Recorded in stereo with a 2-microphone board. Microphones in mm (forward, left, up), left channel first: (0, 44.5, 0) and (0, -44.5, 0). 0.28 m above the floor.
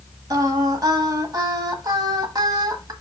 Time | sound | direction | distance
0.3 | singing | 45° right (ahead or behind) | 1.2 m